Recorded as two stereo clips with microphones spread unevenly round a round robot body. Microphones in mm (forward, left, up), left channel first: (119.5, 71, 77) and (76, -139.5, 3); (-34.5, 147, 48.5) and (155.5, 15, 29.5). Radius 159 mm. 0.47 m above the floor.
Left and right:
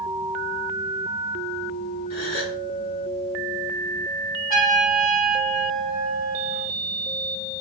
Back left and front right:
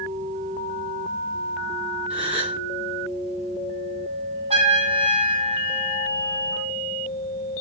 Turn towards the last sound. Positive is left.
turn(degrees=30)